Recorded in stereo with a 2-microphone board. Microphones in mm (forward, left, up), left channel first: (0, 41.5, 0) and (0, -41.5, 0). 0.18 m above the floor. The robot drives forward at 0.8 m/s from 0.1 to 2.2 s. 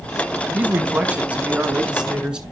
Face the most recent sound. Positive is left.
turn(degrees=-10)  # may be behind; listen again after turning